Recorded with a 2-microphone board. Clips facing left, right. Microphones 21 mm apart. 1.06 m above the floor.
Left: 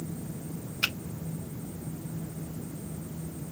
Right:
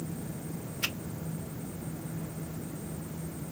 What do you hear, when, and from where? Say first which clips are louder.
0.8 s a finger snap: left 4 dB; 80° left, 5 m